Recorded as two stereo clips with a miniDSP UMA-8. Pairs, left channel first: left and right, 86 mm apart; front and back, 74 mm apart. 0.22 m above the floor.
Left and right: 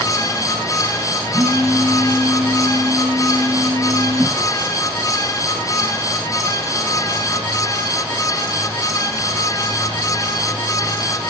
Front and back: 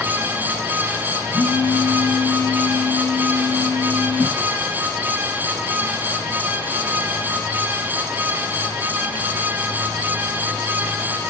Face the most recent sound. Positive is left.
turn(degrees=-35)